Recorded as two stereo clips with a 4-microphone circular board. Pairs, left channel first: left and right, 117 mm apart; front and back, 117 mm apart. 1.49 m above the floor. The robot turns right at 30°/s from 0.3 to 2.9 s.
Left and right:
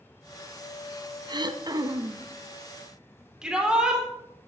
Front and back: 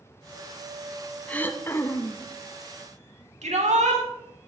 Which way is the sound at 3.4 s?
175° right.